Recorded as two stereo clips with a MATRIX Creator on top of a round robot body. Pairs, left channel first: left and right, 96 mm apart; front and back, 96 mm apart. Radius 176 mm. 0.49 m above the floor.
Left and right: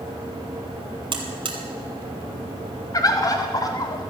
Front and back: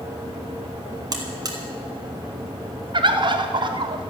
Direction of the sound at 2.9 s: 140° left.